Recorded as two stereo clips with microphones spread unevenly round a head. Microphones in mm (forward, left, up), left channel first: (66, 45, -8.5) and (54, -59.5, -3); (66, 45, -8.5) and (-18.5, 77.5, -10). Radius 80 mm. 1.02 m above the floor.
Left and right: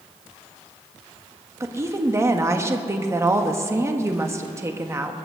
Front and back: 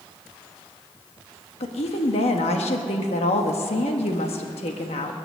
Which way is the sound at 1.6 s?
30° right.